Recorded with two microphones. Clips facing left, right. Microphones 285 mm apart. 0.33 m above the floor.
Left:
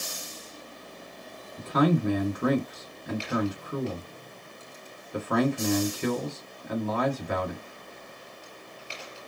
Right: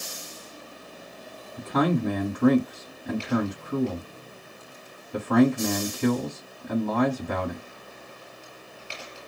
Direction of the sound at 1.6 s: 60° right (ahead or behind).